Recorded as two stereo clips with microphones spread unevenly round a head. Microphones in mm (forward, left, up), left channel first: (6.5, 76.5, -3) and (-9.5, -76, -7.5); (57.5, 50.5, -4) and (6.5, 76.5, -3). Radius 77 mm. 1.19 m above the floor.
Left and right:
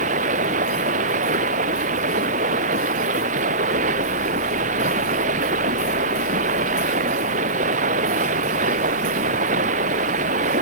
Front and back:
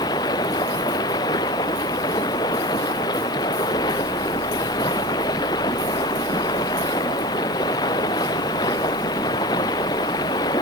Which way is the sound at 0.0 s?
55° right.